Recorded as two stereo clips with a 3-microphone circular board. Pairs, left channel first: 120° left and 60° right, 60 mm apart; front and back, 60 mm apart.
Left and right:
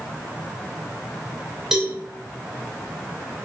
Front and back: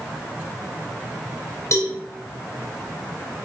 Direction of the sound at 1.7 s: 20° left.